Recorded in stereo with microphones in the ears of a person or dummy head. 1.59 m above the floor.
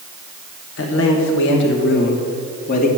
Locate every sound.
0.8 s a man speaking: 80° left, 1.7 m; by 2.9 s 50° left (ahead or behind), 1.9 m